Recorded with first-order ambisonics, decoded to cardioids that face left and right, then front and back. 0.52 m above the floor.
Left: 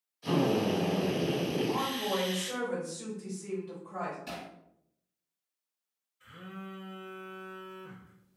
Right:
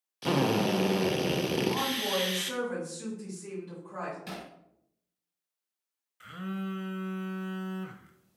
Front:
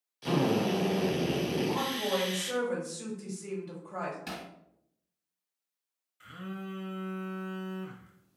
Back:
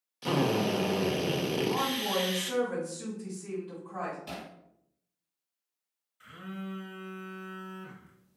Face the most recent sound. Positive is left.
turn(degrees=-80)